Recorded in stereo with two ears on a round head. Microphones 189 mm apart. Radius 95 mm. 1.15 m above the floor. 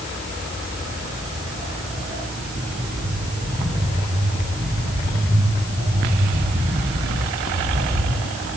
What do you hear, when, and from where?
0.8 s footsteps: 10° left (ahead or behind), 4 m; by 8.1 s 55° right (ahead or behind), 3 m